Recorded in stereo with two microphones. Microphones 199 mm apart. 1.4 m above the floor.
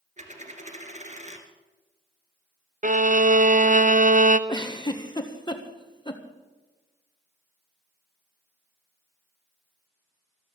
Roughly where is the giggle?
Left.